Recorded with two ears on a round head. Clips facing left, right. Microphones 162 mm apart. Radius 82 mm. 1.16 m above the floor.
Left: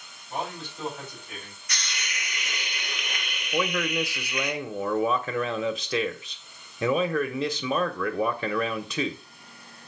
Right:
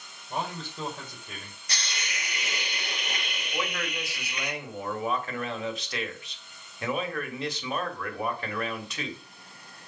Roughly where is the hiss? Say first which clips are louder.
Right 1 dB; right.